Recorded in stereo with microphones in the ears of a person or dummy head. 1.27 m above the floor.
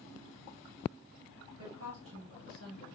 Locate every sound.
1.6 s a woman speaking: 80° right, 1.6 m; by 2.9 s 70° right (ahead or behind), 2.5 m